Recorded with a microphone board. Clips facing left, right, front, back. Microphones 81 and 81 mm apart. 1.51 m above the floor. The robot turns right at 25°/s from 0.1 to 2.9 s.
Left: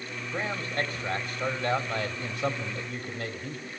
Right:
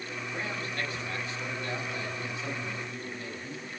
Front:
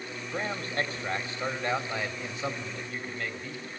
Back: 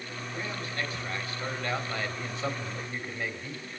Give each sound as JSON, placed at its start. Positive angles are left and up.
{"t": 0.3, "sound": "a man speaking", "azimuth_deg": 30, "distance_m": 4.0}